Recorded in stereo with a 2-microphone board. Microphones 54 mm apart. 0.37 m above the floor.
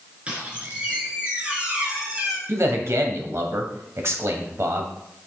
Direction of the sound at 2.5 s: 55° right (ahead or behind).